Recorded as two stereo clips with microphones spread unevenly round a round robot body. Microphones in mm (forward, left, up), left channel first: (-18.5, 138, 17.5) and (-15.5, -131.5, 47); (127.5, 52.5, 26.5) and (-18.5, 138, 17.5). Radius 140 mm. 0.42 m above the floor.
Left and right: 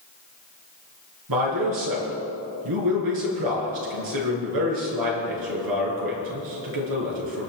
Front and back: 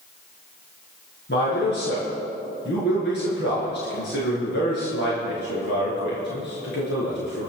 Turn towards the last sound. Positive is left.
turn(degrees=-80)